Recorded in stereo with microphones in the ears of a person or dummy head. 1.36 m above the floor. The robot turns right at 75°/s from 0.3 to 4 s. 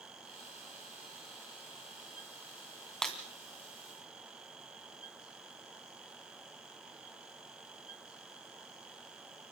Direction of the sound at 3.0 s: Centre (ahead or behind).